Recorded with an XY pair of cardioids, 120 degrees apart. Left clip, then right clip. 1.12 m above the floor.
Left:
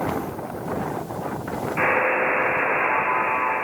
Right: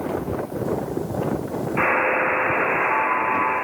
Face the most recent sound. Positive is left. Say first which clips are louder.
# right 1 dB
turn(degrees=-10)